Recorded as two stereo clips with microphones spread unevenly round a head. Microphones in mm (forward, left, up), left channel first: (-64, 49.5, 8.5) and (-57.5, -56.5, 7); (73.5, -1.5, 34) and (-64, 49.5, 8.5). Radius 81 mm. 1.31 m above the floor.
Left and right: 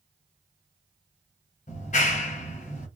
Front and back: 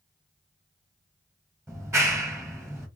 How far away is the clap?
About 1.1 m.